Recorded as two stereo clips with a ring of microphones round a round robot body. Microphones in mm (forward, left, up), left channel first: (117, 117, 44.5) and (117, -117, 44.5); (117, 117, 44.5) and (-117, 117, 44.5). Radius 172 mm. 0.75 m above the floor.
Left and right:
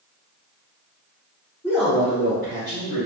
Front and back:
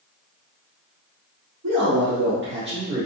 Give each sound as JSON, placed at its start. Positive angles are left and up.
{"t": 1.6, "sound": "a man speaking", "azimuth_deg": 155, "distance_m": 1.6}